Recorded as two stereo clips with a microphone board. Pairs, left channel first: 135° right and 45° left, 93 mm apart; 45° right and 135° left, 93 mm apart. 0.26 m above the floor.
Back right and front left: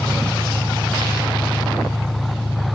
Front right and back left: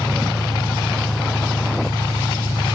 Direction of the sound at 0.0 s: 65° right.